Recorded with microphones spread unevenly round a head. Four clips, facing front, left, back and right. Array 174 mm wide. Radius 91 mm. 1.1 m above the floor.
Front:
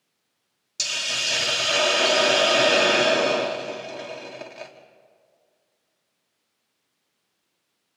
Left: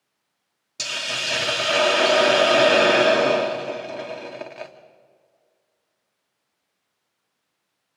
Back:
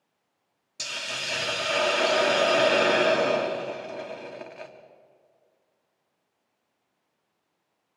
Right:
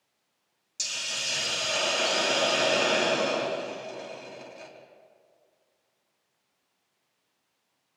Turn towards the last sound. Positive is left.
turn(degrees=80)